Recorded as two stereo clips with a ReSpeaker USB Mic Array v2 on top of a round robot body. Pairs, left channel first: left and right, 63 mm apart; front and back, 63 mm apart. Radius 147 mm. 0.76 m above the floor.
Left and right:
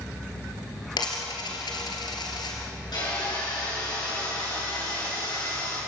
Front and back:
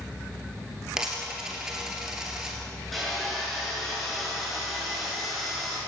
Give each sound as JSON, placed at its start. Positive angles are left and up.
{"t": 1.0, "sound": "a dropped coin", "azimuth_deg": 100, "distance_m": 2.5}
{"t": 2.9, "sound": "sawing", "azimuth_deg": 90, "distance_m": 7.5}